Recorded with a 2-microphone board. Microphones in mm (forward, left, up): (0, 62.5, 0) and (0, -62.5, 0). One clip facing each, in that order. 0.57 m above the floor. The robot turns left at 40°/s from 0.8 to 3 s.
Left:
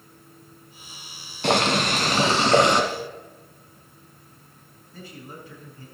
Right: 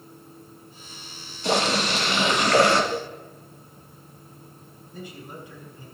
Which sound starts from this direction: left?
Boiling, at 1.4 s.